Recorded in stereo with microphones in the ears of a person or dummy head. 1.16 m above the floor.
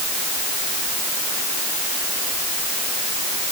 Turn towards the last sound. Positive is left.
No sound to turn to.